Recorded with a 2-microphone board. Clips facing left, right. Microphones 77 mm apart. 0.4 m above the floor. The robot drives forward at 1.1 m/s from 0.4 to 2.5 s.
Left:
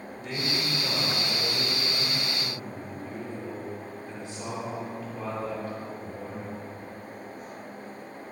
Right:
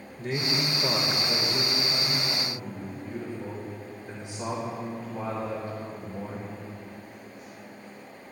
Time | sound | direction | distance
0.2 | a man speaking | 45° right (ahead or behind) | 1.7 m